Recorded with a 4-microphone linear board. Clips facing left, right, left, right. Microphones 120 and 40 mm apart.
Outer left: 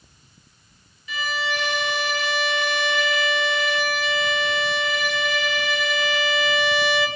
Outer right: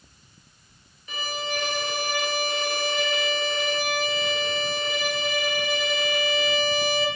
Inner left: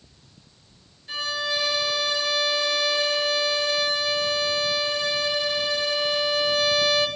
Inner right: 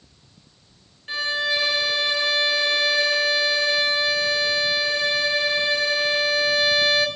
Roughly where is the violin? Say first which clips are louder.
Outer left 4 dB, inner right 4 dB; right.